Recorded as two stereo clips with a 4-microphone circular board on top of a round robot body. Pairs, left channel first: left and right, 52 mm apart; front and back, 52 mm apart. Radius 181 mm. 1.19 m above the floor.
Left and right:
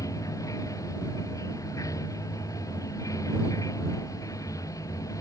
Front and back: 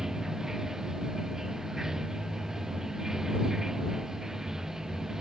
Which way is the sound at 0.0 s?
100° left.